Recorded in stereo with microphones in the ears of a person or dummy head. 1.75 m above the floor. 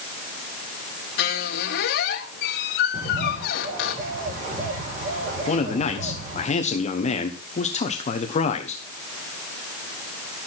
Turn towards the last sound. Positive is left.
turn(degrees=35)  # may be behind; listen again after turning